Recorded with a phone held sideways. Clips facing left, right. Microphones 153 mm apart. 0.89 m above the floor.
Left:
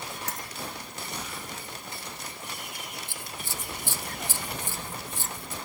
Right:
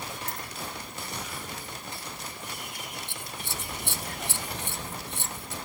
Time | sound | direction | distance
0.3 | a dropped coin | 75° left (ahead or behind) | ?
3.1 | scissors | 65° right (ahead or behind) | ?